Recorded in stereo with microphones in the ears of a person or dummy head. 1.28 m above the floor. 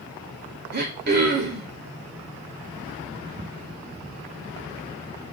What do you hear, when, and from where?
0.7 s throat clearing: 45° right (ahead or behind), 0.5 m